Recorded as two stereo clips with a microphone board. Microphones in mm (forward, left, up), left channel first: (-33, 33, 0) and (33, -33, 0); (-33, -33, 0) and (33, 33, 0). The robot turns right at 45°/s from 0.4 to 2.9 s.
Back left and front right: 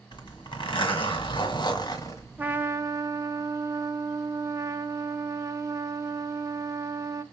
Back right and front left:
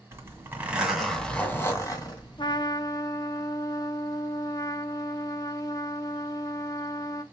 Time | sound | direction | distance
0.1 | a zipper | 110° left | 2.0 m
2.4 | a trumpet | 115° right | 0.9 m